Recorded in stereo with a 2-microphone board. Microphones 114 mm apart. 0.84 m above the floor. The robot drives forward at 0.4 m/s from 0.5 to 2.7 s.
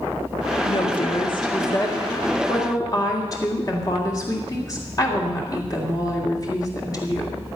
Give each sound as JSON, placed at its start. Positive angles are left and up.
{"t": 0.7, "sound": "a woman speaking", "side_deg": 50, "distance_m": 1.4}